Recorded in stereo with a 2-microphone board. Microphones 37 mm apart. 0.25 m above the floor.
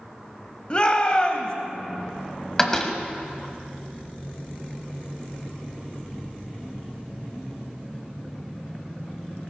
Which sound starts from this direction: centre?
A door slam, at 2.6 s.